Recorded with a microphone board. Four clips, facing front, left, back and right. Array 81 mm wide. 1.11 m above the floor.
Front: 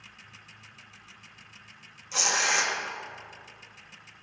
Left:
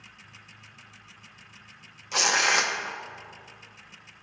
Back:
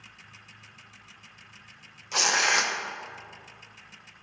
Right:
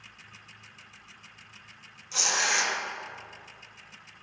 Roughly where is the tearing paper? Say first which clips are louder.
Left 5 dB, back 3 dB; behind left.